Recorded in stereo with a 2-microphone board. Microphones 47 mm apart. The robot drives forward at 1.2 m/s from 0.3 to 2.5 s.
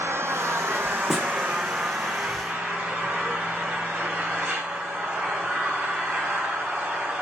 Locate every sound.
0.0 s an engine running: 75° right (ahead or behind), 1.3 m; by 7.2 s 25° right (ahead or behind), 3 m
1.1 s a snare drum: 5° right (ahead or behind), 1.3 m